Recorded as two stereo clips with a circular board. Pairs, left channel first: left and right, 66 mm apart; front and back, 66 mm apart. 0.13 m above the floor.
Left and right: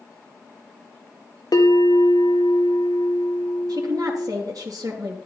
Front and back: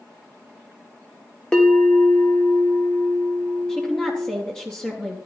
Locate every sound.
1.5 s a bell: 75° left, 1.6 m
3.7 s a woman speaking: 75° right, 3 m